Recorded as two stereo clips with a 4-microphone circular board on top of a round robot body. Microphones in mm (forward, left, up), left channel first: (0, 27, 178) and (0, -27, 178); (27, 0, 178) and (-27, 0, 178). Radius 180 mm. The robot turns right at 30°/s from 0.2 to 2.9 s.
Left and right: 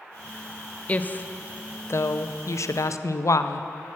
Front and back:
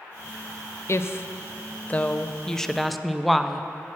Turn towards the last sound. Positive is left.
turn(degrees=90)